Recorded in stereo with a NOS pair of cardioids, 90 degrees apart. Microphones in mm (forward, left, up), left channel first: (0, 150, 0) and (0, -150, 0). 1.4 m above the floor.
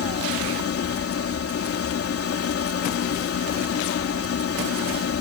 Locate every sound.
0.0 s a machine running: 50° left